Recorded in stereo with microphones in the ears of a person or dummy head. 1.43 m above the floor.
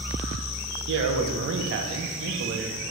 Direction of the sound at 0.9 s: 65° right (ahead or behind).